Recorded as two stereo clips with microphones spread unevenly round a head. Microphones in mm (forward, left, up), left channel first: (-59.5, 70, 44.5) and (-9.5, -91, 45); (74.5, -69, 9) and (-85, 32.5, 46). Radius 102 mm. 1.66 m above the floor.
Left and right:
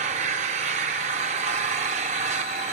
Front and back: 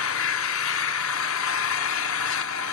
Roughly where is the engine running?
Ahead right.